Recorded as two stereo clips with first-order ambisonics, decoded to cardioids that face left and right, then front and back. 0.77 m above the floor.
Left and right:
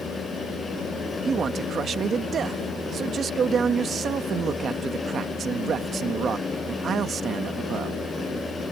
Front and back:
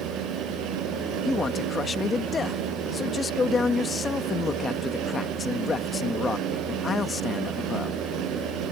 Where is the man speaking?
55° right.